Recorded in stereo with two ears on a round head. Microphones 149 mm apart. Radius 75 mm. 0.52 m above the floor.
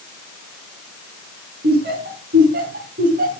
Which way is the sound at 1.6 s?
65° right (ahead or behind).